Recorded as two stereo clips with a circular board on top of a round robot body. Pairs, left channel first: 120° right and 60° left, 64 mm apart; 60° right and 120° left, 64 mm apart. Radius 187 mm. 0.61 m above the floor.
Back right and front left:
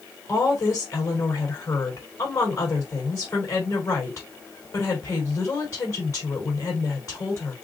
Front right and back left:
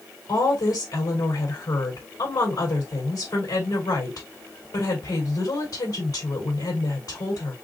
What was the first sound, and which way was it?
A woman speaking, 80° right.